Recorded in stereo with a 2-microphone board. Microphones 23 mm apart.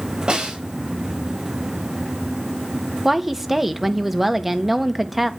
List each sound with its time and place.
0.3 s a snare drum: 40° right (ahead or behind), 3.5 m
3.0 s a woman speaking: 10° right (ahead or behind), 1.3 m